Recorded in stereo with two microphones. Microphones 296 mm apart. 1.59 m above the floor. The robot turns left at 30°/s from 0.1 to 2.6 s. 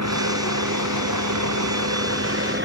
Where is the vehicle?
65° right; by 2.6 s 140° right.